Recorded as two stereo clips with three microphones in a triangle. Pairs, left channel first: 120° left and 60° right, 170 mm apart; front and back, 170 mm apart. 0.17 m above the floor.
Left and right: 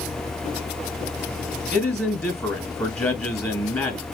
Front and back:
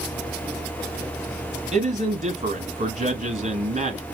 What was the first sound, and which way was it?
A man speaking, 175° right.